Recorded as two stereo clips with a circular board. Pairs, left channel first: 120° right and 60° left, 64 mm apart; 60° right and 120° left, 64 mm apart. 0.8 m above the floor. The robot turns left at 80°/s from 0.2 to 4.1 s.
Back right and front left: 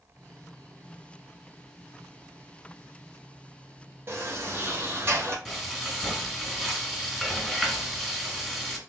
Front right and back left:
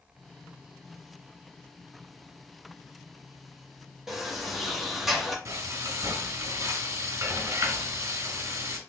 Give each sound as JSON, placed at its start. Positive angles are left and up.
{"t": 4.1, "sound": "a sliding door", "azimuth_deg": 40, "distance_m": 1.1}
{"t": 5.5, "sound": "frying", "azimuth_deg": 145, "distance_m": 1.2}